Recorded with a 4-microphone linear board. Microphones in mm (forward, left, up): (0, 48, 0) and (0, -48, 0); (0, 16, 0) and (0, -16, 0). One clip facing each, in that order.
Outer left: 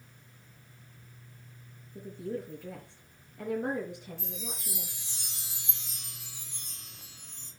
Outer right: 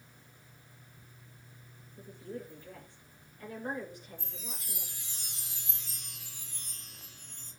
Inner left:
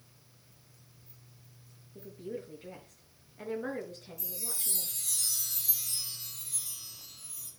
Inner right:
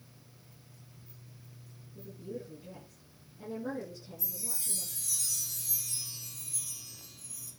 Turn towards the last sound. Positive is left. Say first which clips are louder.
# outer left 6 dB, inner left 3 dB
turn(degrees=85)